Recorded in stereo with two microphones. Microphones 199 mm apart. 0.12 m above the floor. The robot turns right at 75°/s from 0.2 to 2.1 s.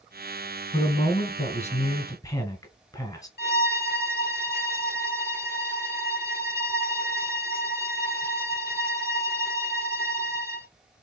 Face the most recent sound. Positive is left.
turn(degrees=55)  # may be behind; listen again after turning